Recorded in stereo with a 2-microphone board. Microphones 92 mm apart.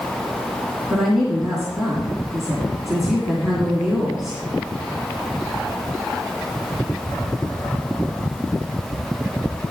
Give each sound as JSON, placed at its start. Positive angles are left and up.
{"t": 0.9, "sound": "a woman speaking", "side_deg": -5, "distance_m": 2.5}